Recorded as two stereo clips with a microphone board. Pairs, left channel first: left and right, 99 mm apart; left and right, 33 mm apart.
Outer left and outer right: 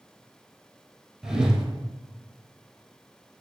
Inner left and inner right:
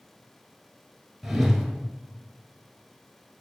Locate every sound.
1.2 s a whoosh: 5° right (ahead or behind), 0.7 m